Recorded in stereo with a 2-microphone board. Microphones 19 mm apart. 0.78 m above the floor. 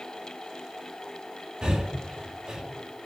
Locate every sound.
1.6 s breathing: 50° right (ahead or behind), 2.5 m